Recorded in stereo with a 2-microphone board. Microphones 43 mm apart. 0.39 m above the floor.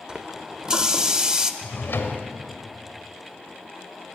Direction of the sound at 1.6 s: 60° left (ahead or behind).